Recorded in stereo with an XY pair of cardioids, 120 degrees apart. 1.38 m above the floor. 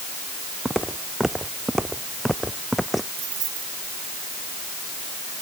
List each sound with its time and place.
0.7 s footsteps: 10° right; by 3.1 s straight ahead
3.2 s keys jangling: 60° right